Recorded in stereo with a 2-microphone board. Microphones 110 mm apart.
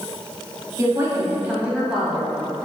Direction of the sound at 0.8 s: 35° right (ahead or behind).